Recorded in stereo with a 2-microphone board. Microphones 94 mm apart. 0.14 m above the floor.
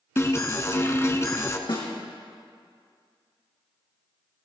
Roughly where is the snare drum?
Left.